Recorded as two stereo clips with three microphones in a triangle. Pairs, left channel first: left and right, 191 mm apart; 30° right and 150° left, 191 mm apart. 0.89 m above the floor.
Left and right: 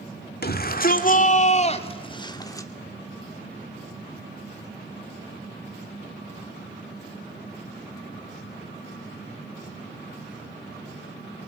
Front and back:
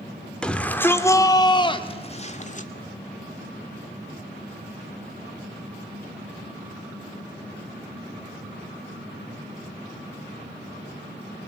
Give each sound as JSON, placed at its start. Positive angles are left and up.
{"t": 0.4, "sound": "a shout", "azimuth_deg": 55, "distance_m": 2.5}